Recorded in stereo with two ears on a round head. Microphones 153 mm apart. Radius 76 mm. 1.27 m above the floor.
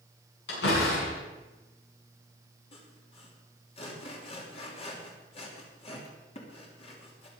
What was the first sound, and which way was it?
A door slam, 75° left (ahead or behind).